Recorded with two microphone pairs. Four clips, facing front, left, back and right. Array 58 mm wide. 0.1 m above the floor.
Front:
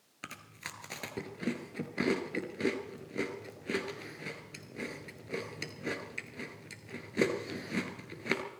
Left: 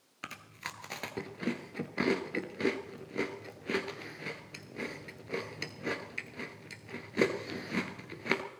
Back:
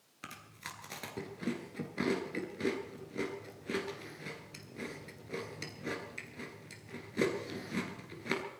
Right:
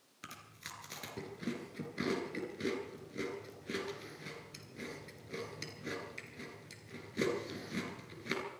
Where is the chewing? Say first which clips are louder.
Left 7 dB, front 2 dB; 60° left, 1.6 m.